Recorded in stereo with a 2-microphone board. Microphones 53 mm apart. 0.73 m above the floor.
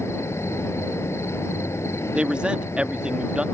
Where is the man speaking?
20° right (ahead or behind).